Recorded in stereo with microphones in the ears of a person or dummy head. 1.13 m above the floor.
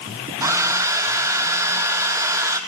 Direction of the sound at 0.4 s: 15° right (ahead or behind).